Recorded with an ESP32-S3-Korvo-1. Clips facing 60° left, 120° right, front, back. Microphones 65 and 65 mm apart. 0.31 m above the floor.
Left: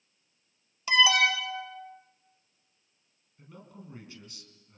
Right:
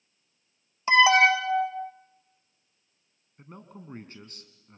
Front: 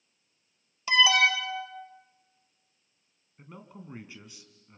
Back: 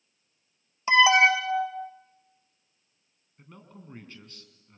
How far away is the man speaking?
About 3 m.